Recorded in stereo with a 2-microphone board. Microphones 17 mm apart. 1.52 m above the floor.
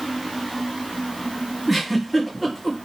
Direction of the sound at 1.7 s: 15° right (ahead or behind).